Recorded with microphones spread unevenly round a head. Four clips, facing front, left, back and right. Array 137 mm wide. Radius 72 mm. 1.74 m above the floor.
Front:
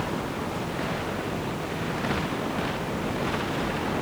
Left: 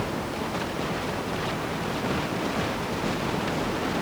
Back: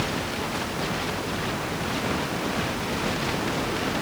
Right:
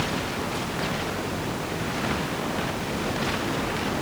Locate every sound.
Only background noise.